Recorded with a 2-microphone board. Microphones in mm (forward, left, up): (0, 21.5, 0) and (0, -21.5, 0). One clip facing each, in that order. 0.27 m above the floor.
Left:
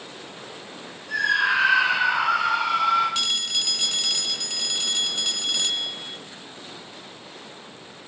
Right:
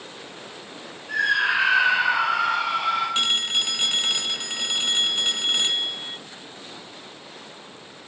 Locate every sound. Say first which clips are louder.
1.1 s a scream: even; 35° right (ahead or behind), 9 m
3.1 s a phone ringing: right 3 dB; 30° right (ahead or behind), 0.5 m